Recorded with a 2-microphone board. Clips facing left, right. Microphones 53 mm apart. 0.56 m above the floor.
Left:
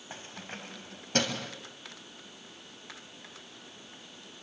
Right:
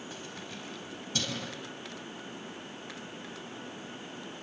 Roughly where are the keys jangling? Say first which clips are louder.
Right 1 dB; left.